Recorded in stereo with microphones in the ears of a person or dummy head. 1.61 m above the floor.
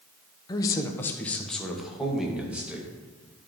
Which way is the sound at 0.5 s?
25° left (ahead or behind).